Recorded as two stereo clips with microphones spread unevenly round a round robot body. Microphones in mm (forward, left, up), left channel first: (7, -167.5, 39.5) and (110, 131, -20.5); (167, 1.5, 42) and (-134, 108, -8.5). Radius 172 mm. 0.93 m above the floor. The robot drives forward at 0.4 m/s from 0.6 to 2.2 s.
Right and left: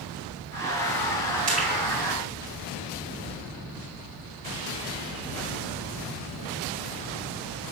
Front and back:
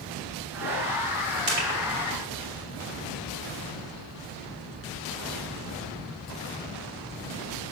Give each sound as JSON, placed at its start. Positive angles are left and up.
{"t": 1.5, "sound": "crushing", "azimuth_deg": 140, "distance_m": 2.5}